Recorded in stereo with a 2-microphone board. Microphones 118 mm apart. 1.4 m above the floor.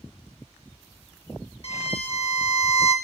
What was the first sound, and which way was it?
A violin, 55° left (ahead or behind).